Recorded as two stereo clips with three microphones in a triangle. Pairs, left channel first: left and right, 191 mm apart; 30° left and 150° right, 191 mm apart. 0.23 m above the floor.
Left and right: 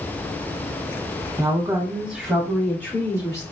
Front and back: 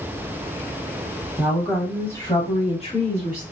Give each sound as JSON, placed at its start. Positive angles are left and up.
{"t": 1.4, "sound": "a woman speaking", "azimuth_deg": -90, "distance_m": 1.0}